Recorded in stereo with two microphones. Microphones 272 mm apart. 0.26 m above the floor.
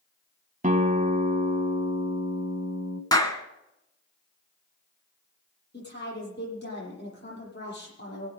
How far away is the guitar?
About 1.0 m.